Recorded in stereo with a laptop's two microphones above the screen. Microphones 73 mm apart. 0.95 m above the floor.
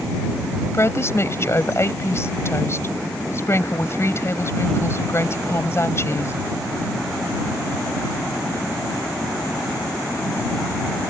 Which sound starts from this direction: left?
A woman speaking, at 0.7 s.